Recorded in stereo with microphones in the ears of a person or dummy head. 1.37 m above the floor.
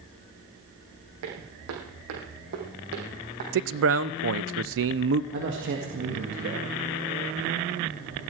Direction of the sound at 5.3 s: 60° right (ahead or behind).